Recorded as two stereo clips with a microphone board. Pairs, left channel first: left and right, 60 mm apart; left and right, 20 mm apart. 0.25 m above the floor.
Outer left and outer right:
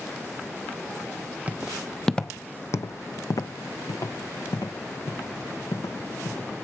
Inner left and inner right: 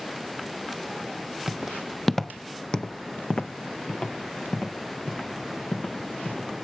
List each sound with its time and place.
1.5 s footsteps: 25° right (ahead or behind), 0.7 m; by 6.5 s 80° left, 2.5 m